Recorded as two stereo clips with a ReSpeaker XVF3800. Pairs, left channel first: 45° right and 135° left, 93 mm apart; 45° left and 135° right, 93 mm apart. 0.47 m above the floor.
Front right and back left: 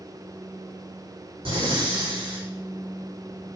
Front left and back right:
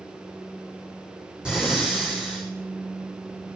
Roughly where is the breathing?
Behind left.